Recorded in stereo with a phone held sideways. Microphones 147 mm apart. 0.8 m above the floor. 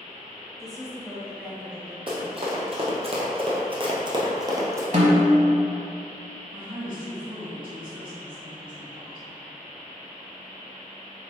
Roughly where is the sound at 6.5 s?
Right.